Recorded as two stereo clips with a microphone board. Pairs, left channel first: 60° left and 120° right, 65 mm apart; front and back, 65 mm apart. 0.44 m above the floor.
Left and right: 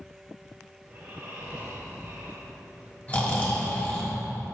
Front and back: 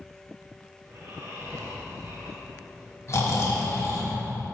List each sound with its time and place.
0.8 s snoring: straight behind, 1.6 m
3.1 s snoring: 5° left, 1.5 m